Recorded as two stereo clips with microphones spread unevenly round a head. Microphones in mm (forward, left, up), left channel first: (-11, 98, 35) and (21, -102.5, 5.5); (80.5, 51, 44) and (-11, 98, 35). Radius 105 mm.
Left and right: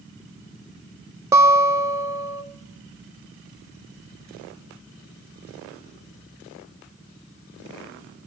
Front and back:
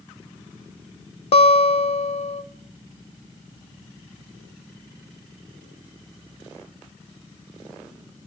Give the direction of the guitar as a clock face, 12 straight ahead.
12 o'clock.